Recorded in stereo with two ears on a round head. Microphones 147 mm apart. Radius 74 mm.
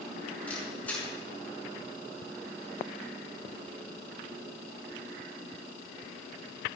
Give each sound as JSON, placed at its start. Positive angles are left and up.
{"t": 0.5, "sound": "a camera shutter", "side_deg": 10, "distance_m": 6.5}